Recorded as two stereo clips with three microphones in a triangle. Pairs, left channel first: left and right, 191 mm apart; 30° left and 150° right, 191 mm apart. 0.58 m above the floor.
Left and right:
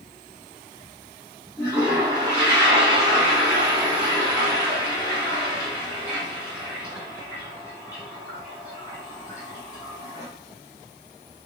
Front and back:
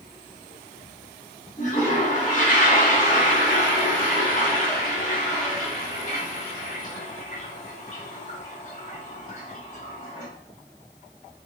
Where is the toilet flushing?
25° left, 1.2 m.